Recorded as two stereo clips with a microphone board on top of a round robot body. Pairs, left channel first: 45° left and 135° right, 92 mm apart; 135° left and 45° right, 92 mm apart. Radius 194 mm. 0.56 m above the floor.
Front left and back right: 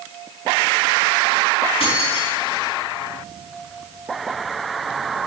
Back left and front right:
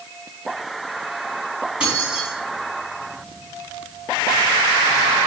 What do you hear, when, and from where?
1.8 s keys jangling: 35° left, 4 m